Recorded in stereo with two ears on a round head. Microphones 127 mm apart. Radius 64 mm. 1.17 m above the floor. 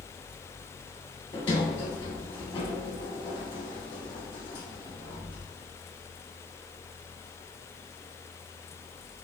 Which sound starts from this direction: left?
A sliding door, at 1.3 s.